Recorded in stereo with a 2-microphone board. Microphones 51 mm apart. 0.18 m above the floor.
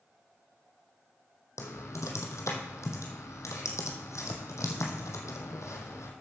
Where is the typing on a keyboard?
80° left, 2 m.